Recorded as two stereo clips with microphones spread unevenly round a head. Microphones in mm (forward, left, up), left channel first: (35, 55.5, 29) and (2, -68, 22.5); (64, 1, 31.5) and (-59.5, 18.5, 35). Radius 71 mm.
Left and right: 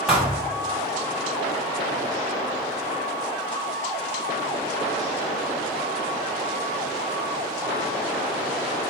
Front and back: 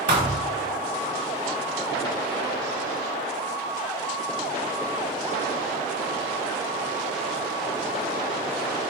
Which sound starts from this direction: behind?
A thud, at 0.1 s.